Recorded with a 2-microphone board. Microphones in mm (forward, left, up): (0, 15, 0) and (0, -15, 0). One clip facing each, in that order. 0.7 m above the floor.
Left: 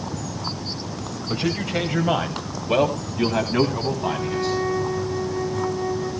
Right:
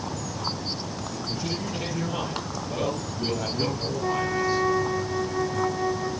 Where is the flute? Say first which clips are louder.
Left 1 dB; 25° right (ahead or behind), 2.0 m.